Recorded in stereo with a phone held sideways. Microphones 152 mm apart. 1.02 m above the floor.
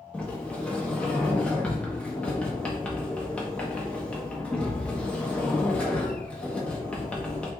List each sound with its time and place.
0.1 s a sliding door: 10° left (ahead or behind), 0.9 m